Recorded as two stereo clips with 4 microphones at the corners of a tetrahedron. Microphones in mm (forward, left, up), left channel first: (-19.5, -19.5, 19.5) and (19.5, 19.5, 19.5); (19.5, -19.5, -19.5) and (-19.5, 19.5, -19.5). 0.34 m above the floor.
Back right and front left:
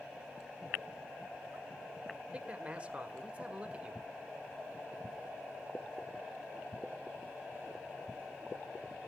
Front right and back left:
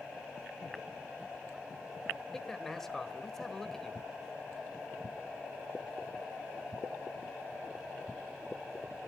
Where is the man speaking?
25° left, 1.4 m.